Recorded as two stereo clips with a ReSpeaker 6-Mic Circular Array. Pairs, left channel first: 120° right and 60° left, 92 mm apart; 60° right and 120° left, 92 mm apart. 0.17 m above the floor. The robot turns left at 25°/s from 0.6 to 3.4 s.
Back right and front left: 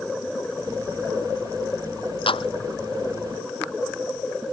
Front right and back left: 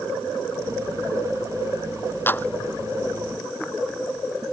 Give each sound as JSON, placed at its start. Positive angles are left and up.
{"t": 2.3, "sound": "a clap", "azimuth_deg": -125}